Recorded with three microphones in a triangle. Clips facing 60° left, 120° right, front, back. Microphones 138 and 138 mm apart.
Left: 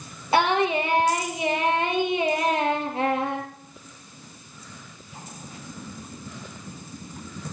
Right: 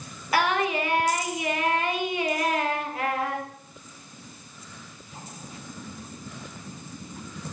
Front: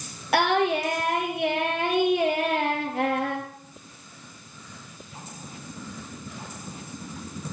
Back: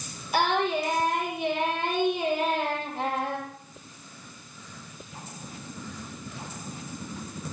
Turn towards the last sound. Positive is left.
turn(degrees=-5)